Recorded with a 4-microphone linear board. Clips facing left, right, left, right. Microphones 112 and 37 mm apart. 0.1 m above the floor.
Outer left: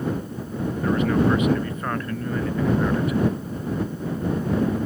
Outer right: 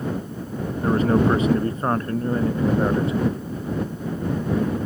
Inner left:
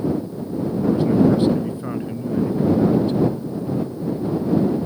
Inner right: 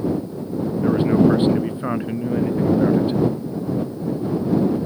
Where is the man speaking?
35° right (ahead or behind); by 3.2 s 25° right (ahead or behind).